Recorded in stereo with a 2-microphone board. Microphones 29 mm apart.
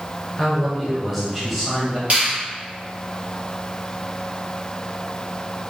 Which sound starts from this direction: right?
A finger snap, at 2.1 s.